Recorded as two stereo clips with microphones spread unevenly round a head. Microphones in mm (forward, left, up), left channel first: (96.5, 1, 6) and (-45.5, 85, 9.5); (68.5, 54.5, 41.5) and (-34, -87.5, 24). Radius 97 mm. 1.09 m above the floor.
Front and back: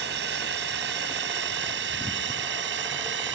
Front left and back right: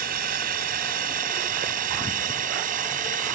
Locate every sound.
0.0 s a drone: 170° right; by 3.4 s 175° right